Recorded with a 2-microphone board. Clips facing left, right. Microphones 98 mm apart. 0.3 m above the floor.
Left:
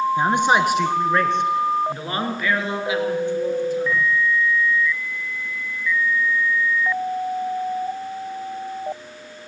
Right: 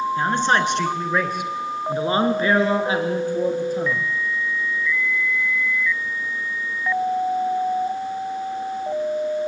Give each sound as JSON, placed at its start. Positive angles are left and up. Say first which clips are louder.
{"t": 0.2, "sound": "a man speaking", "louder": "left 1 dB", "side_deg": 20, "distance_m": 4.0}